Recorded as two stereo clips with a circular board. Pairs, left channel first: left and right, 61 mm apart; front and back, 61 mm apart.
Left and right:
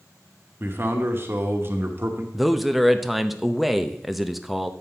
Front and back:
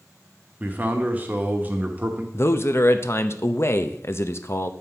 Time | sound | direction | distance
0.6 | a man speaking | 125° right | 1.2 m
2.3 | a man speaking | straight ahead | 0.6 m